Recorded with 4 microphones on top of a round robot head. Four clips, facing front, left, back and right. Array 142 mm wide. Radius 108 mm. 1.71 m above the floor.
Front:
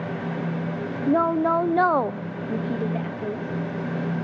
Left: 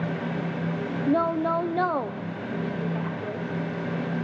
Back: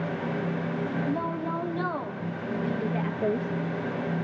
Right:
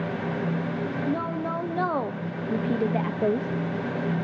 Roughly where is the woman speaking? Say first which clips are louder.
Left 8 dB, front 9 dB; ahead.